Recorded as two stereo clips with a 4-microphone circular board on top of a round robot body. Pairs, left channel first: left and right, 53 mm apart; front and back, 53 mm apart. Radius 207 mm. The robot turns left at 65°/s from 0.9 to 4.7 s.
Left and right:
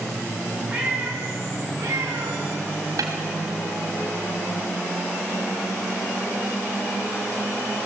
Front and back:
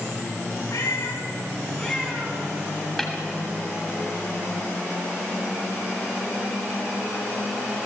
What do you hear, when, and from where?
0.7 s a cat meowing: 20° right, 3 m; by 2.4 s 120° right, 3 m
3.0 s a snare drum: 90° right, 1.3 m; by 3.1 s 100° right, 1.3 m